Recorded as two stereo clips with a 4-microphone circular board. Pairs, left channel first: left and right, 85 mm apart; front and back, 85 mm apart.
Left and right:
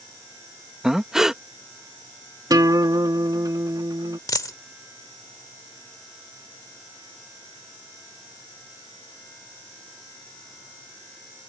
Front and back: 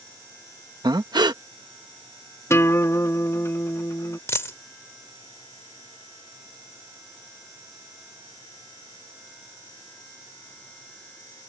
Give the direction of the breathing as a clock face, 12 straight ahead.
6 o'clock.